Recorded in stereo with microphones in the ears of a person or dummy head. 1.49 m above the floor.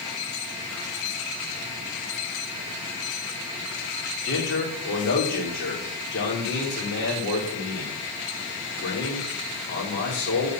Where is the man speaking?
65° left (ahead or behind), 3.5 m.